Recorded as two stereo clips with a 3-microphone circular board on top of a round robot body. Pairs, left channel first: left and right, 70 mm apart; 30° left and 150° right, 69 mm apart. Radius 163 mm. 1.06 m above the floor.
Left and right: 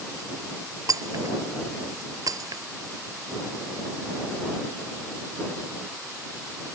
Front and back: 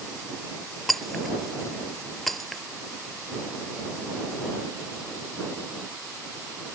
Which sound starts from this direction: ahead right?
Breaking glass, at 0.9 s.